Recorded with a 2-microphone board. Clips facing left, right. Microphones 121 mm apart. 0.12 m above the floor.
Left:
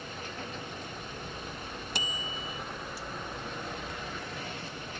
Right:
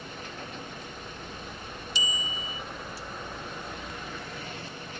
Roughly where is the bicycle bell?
Left.